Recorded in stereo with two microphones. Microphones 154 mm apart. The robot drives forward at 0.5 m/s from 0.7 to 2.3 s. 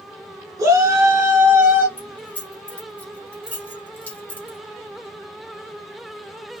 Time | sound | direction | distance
0.6 | a shout | 15° right (ahead or behind) | 2.5 m
2.0 | keys jangling | 10° left (ahead or behind) | 3 m